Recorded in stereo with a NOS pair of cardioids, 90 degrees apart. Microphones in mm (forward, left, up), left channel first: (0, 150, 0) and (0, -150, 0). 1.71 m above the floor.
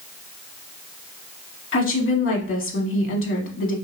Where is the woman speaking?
45° left, 1.6 m.